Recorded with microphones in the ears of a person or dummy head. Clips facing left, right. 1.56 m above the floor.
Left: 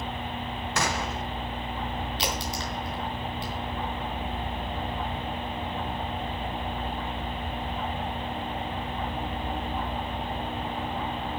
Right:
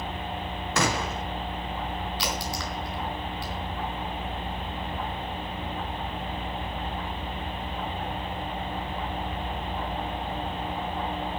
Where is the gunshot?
55° right (ahead or behind), 0.8 m.